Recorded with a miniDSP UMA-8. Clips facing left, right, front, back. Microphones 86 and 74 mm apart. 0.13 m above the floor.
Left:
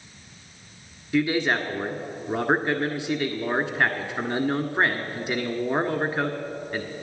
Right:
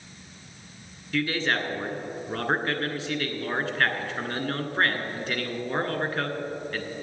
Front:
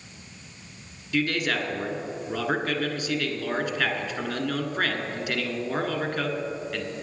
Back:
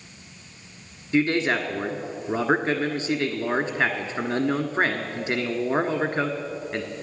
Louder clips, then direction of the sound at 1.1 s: Left 4 dB, back 4 dB; 150° left.